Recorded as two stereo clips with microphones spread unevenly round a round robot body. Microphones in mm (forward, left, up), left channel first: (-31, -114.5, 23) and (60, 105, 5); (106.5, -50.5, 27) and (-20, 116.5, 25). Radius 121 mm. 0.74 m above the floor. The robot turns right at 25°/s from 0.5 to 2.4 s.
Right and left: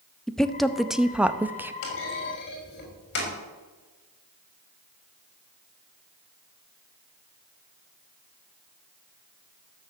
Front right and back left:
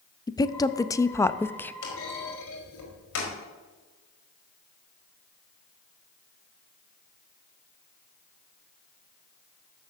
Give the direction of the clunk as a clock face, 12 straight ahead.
3 o'clock.